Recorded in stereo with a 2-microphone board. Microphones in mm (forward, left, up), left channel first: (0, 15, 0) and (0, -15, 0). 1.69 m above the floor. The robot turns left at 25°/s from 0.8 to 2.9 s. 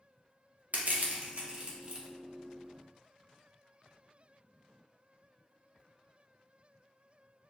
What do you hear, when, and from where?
0.7 s crushing: 60° right (ahead or behind), 0.8 m; by 2.1 s 30° right (ahead or behind), 0.8 m